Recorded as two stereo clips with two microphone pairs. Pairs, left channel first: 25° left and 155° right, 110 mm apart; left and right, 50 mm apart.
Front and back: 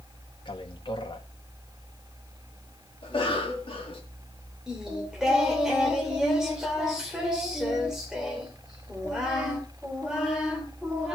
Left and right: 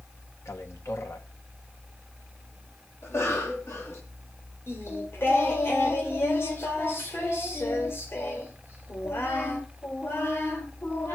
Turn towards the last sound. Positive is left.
turn(degrees=120)